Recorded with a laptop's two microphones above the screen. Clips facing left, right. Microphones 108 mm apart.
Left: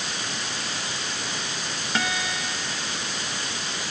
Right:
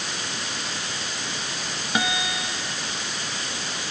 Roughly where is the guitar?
Centre.